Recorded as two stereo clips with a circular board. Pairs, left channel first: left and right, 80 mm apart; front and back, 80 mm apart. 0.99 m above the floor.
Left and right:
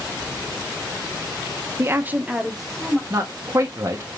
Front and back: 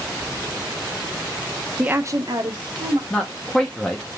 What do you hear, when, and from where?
1.8 s a woman speaking: 115° right, 0.7 m; by 3.0 s 175° left, 1.7 m
3.1 s a man speaking: 70° right, 1.0 m